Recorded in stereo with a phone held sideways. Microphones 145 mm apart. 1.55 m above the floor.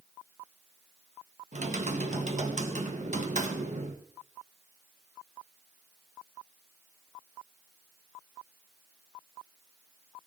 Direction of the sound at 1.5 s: 55° right (ahead or behind).